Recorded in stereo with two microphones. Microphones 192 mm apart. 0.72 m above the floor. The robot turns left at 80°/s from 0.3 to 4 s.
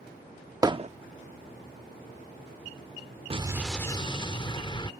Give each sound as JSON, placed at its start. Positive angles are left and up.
{"t": 0.6, "sound": "hammering", "side_deg": -20}
{"t": 3.3, "sound": "an explosion", "azimuth_deg": -150}